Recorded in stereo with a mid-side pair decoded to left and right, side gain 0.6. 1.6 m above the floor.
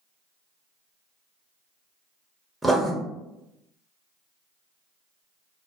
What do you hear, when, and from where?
2.6 s writing: 5° right, 0.7 m